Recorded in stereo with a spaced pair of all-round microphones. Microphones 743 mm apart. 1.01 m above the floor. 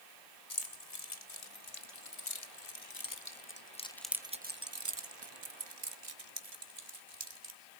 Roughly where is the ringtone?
I don't hear a ringtone.